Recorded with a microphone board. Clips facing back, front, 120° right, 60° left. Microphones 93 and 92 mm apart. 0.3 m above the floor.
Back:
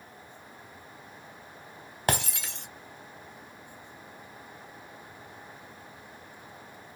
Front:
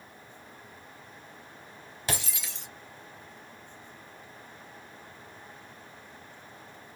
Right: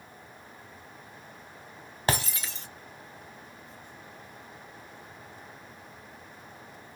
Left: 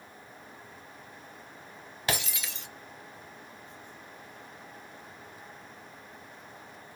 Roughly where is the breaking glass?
Behind.